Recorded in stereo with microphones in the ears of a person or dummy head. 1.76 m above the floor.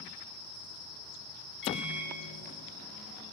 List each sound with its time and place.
1.6 s a microwave: 55° left (ahead or behind), 0.9 m